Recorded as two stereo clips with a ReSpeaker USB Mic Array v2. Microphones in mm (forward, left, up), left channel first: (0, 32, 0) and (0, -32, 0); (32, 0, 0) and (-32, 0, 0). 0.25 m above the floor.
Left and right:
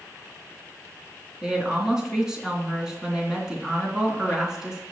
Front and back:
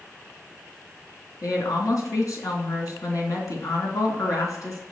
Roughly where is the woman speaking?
Ahead.